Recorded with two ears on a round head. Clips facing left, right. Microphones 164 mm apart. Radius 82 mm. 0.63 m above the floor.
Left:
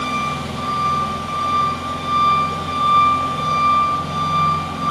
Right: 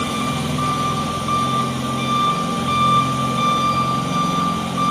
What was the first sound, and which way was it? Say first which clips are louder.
An engine running: right 3 dB; 55° right (ahead or behind).